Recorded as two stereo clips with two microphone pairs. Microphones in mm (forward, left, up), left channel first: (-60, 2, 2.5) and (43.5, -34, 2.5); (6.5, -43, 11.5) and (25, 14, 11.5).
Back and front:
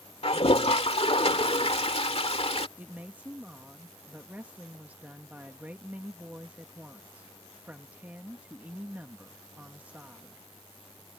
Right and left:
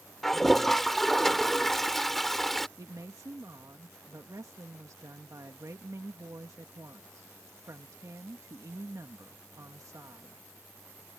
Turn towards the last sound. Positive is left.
turn(degrees=55)